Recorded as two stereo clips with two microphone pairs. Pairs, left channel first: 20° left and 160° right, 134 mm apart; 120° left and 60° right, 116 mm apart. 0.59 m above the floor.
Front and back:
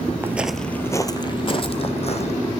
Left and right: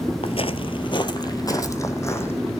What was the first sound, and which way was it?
Footsteps, 130° left.